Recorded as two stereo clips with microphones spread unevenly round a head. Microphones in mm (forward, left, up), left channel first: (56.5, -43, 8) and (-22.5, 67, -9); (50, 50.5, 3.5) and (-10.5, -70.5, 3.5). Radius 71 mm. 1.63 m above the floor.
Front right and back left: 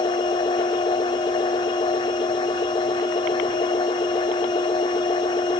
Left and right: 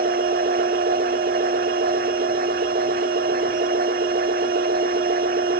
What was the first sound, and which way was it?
A machine running, 110° right.